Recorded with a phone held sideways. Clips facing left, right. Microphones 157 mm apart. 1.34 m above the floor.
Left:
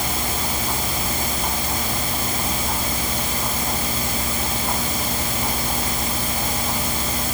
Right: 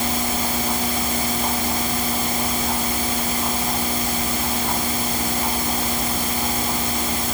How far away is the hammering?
No hammering in this recording.